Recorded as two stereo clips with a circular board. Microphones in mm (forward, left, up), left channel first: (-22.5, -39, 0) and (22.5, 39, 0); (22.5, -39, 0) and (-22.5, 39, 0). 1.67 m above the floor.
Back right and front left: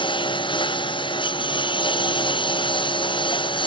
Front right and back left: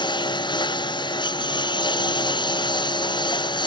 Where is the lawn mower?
95° right.